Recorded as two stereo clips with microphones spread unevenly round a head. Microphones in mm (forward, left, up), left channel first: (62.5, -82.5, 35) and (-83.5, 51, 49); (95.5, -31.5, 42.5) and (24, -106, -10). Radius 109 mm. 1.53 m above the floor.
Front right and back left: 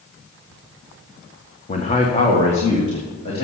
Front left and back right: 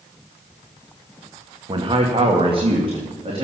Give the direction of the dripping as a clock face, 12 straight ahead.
No dripping in this recording.